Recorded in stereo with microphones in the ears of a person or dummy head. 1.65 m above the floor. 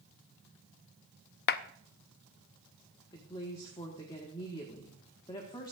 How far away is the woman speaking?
About 1.4 m.